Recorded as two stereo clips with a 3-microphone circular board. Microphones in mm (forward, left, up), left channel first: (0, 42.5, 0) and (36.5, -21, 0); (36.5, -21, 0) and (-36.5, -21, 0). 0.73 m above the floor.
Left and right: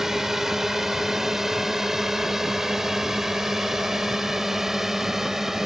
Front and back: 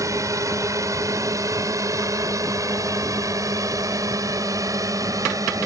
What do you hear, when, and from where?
0.0 s a drone: 145° right